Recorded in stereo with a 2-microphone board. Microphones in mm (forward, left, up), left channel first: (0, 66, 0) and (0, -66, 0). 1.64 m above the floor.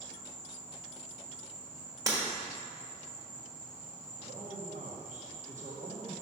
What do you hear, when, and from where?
0.0 s an insect: 75° right (ahead or behind), 1.0 m
2.1 s breaking glass: 30° right (ahead or behind), 1.5 m
4.2 s a man speaking: 65° right (ahead or behind), 1.1 m